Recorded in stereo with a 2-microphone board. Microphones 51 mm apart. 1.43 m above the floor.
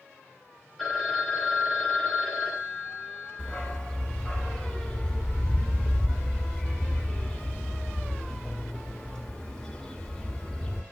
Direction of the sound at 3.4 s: 15° left (ahead or behind).